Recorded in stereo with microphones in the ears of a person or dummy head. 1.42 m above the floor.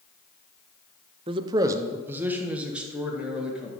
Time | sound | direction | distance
1.3 | a man speaking | 25° right (ahead or behind) | 0.5 m